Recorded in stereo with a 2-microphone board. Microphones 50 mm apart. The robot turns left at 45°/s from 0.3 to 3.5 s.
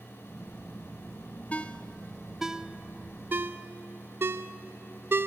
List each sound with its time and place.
1.5 s a ringtone: 30° left (ahead or behind), 0.5 m; by 5.3 s 50° right (ahead or behind), 0.5 m